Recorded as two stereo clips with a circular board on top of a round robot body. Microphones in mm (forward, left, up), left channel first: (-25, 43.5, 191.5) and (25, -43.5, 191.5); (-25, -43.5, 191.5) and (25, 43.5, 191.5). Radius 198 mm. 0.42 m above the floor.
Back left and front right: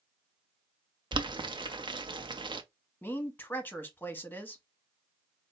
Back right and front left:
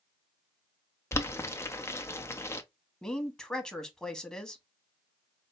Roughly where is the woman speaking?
Behind.